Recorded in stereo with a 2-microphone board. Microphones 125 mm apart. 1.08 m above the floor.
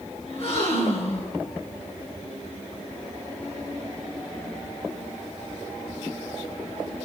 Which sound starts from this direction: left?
A gasp, at 0.3 s.